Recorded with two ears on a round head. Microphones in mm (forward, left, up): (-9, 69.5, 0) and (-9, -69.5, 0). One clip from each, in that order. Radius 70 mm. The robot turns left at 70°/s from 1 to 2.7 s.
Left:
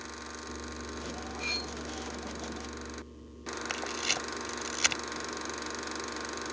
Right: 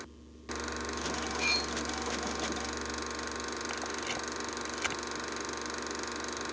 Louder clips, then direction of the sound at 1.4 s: Right 3 dB; 35° right (ahead or behind).